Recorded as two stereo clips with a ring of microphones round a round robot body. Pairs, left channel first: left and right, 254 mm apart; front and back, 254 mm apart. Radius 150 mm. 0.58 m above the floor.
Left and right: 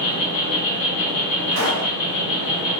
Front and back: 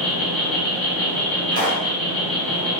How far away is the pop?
About 1.8 m.